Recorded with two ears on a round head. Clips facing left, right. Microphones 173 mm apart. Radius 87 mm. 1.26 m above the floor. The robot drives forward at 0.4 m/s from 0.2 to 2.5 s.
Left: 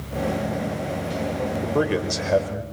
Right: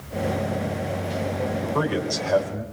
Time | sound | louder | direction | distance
1.6 | a man speaking | left 4 dB | 25° left (ahead or behind) | 4.5 m